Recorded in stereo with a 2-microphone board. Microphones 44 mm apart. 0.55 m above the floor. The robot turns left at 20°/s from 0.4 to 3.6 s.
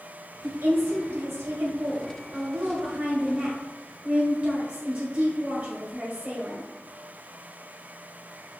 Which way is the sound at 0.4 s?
65° right.